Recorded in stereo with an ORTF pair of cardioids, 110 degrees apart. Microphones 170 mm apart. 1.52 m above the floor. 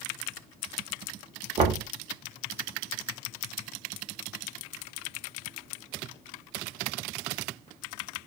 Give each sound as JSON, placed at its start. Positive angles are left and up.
{"t": 1.6, "sound": "knocking", "azimuth_deg": -40, "distance_m": 0.8}